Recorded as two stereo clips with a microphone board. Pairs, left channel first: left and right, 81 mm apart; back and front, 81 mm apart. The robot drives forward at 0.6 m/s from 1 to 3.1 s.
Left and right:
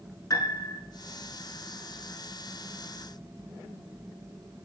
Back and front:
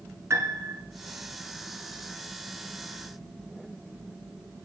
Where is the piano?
50° left, 0.8 m.